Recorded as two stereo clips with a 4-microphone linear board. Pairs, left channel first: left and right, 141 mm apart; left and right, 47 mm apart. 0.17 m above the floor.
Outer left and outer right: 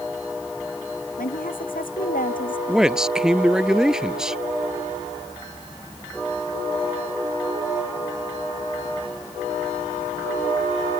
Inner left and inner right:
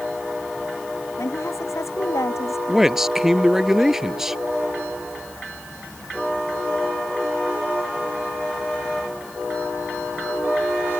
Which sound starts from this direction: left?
A woman speaking, at 1.2 s.